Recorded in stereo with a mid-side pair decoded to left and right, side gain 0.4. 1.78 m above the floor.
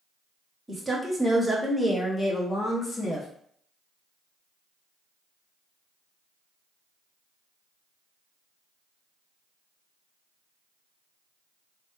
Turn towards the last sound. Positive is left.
turn(degrees=45)